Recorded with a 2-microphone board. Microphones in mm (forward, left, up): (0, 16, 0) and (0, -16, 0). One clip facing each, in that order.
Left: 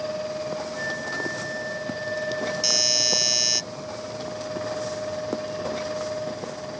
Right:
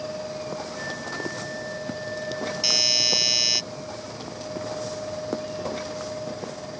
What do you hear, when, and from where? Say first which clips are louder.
0.8 s a flute: left 3 dB; 20° left (ahead or behind)
2.6 s a doorbell: right 4 dB; 20° right (ahead or behind)